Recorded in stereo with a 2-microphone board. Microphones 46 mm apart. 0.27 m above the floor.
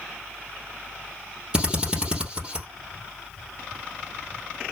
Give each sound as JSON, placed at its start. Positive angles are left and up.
{"t": 1.5, "sound": "a drill", "side_deg": -20, "distance_m": 3.0}